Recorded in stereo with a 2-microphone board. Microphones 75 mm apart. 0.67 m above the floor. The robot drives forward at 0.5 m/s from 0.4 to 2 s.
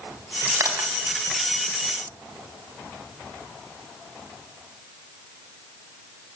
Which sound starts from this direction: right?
Crushing, at 0.6 s.